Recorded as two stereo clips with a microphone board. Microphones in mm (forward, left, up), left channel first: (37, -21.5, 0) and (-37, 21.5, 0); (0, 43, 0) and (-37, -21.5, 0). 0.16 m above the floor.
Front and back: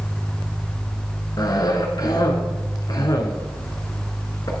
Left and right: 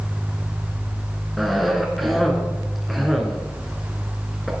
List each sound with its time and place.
1.4 s a cough: 30° right, 1.5 m